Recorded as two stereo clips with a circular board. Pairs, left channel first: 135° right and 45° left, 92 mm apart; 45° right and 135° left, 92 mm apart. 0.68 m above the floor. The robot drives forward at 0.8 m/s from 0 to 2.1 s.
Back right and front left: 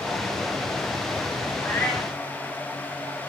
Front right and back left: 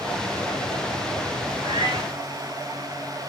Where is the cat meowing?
150° left, 1.5 m; by 2.2 s 160° left, 1.8 m.